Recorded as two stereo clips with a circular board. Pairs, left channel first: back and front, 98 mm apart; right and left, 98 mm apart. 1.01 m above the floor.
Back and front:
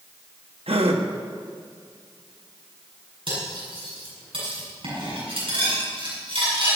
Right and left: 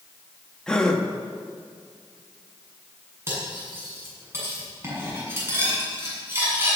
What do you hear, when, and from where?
0.7 s a gasp: 10° right, 1.4 m
3.3 s cutlery clinking: 25° left, 7 m